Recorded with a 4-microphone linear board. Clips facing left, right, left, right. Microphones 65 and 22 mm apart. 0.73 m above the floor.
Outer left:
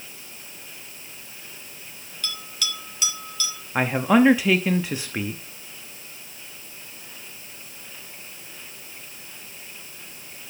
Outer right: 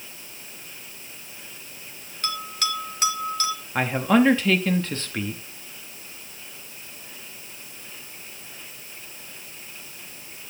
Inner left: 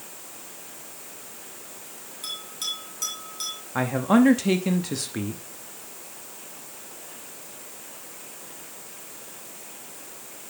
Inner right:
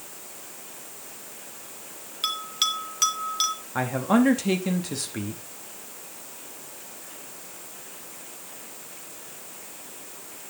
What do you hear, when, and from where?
2.2 s a bell: 45° right (ahead or behind), 2.5 m
3.8 s a man speaking: 10° left (ahead or behind), 0.8 m